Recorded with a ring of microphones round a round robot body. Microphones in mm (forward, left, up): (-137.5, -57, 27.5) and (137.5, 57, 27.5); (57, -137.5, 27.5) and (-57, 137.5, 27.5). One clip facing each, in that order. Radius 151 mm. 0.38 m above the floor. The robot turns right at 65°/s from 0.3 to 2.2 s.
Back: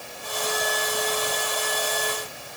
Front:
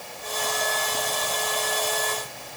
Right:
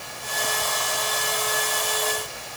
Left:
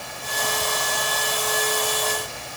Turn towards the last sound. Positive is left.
No sound to turn to.